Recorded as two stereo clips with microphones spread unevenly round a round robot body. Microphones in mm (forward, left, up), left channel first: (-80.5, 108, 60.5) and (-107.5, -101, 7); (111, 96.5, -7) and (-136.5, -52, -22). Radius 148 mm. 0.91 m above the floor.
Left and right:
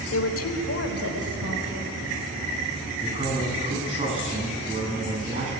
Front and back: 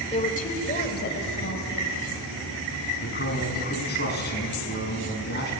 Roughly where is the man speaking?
Ahead right.